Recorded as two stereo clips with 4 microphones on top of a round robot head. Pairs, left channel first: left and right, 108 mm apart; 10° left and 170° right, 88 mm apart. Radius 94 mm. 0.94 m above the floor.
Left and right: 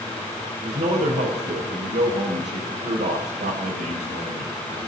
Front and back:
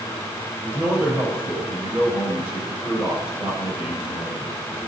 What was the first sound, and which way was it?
A man speaking, 95° right.